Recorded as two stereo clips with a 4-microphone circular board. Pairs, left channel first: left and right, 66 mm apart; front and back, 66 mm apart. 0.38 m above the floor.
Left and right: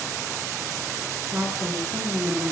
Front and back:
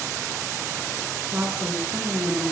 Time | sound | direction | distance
1.3 | a woman speaking | 120° right | 7.5 m